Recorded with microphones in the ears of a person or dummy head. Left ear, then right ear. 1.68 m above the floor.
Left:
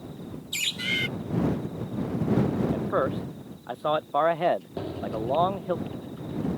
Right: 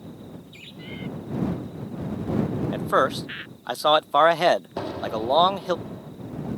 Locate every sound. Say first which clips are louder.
0.5 s a bird: left 15 dB; 60° left (ahead or behind)
2.7 s a man speaking: right 9 dB; 65° right (ahead or behind)
4.8 s an explosion: right 4 dB; 45° right (ahead or behind)